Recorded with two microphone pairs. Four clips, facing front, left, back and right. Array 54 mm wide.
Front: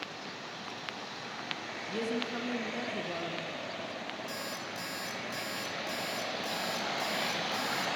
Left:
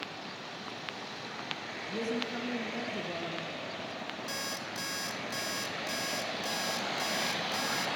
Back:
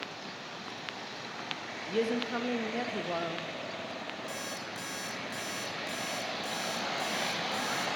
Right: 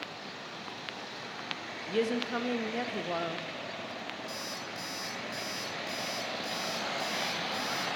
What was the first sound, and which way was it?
A woman speaking, 120° right.